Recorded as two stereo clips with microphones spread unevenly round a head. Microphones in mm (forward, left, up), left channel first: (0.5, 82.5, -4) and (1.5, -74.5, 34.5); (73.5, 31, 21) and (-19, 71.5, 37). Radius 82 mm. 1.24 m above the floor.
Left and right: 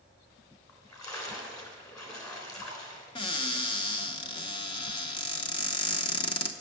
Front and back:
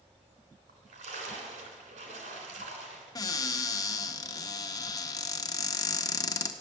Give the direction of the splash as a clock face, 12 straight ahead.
7 o'clock.